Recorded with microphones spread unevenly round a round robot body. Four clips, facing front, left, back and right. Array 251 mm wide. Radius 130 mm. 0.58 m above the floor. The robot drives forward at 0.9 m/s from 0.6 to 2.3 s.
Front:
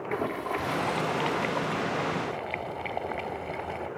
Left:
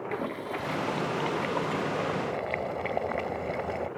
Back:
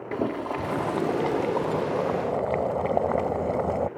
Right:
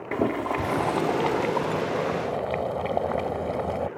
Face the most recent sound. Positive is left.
turn(degrees=-160)